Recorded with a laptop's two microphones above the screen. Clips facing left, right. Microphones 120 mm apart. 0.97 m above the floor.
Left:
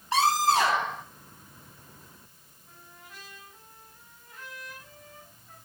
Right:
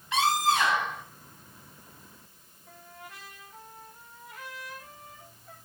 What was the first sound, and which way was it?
A scream, 35° left (ahead or behind).